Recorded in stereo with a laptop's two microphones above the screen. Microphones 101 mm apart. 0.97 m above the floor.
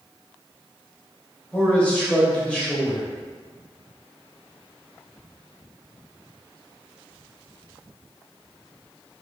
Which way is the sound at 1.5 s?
10° left (ahead or behind).